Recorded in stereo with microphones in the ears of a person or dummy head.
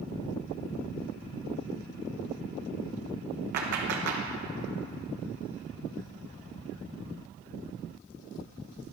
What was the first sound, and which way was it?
A clap, 60° right (ahead or behind).